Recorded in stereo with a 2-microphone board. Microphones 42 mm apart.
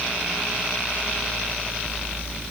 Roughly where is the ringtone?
No ringtone in this recording.